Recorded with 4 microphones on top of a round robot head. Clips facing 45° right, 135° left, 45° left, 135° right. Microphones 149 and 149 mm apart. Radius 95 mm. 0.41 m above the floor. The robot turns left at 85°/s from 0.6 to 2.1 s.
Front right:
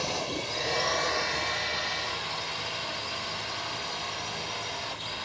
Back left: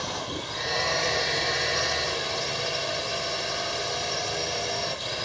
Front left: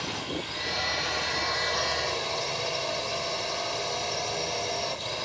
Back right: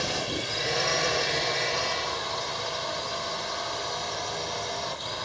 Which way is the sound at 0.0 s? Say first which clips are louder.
Front right 1 dB, back right 3 dB; 120° right.